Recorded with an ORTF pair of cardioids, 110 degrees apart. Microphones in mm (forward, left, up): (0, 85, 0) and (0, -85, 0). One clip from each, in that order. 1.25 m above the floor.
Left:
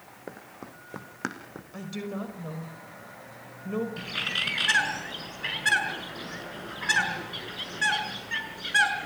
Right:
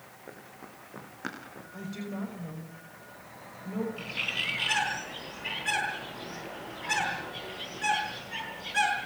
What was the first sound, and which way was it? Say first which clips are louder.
Running footsteps: left 5 dB; 50° left.